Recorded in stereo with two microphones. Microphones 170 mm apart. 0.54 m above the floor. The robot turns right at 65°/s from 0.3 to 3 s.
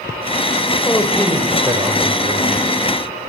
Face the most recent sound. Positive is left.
turn(degrees=-65)